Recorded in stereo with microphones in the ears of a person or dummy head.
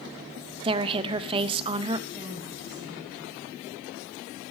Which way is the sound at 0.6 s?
30° right (ahead or behind).